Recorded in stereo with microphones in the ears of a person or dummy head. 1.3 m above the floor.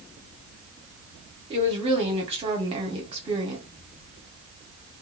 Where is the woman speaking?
30° right (ahead or behind), 1.1 m.